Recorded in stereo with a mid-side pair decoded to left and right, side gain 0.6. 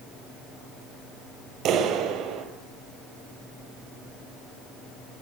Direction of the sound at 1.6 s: 55° right.